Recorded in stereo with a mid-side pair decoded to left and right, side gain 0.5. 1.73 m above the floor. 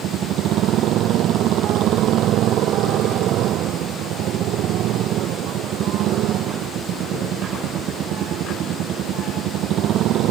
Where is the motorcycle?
70° right.